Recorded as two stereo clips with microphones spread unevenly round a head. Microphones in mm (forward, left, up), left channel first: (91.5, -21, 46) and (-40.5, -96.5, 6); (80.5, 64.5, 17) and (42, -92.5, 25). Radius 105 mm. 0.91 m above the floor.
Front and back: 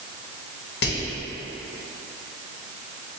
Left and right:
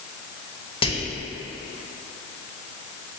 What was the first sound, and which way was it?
Whispering, 20° left.